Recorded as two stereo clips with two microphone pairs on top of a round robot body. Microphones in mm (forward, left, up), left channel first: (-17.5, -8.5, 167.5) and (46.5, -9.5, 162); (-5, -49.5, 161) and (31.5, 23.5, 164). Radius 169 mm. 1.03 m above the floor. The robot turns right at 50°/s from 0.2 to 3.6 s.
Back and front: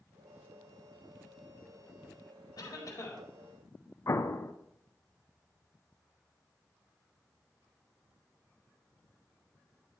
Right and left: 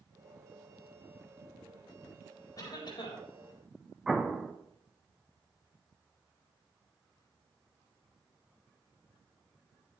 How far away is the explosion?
About 1.0 m.